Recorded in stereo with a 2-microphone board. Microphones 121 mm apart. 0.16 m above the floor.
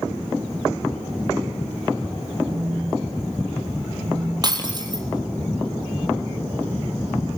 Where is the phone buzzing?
60° right (ahead or behind), 6 m.